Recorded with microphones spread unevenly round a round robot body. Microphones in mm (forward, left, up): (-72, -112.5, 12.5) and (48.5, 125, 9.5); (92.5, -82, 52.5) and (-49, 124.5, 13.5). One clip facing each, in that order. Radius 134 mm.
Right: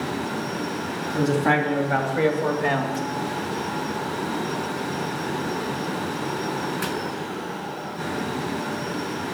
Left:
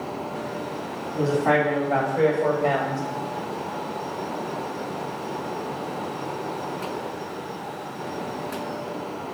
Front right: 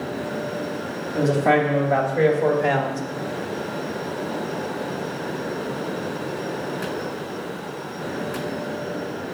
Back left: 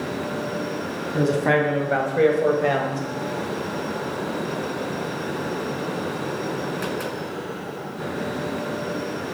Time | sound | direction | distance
1.1 | a man speaking | 170° right | 2.5 m